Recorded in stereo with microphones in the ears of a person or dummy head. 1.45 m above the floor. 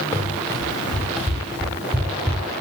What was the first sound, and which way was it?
Running footsteps, 10° left (ahead or behind).